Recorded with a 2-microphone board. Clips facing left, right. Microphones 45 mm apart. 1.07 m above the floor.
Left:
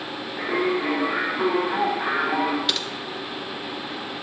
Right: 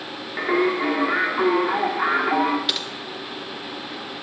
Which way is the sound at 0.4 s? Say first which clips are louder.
Right 3 dB; 65° right (ahead or behind).